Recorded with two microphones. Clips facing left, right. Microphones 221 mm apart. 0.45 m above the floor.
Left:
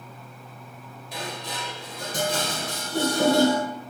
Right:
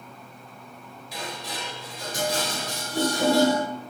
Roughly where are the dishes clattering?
Left.